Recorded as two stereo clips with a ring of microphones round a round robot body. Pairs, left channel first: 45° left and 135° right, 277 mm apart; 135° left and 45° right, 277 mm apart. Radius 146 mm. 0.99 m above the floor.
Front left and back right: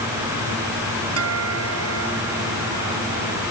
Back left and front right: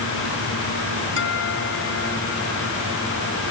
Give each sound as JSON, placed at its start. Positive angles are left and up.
{"t": 1.2, "sound": "a guitar", "azimuth_deg": -175}